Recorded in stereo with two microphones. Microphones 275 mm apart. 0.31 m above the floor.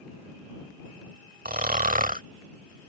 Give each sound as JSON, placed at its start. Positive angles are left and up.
{"t": 1.4, "sound": "snoring", "side_deg": -30}